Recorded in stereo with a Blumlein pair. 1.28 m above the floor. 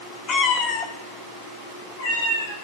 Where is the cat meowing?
25° left, 1.5 m; by 2.5 s 50° left, 4 m.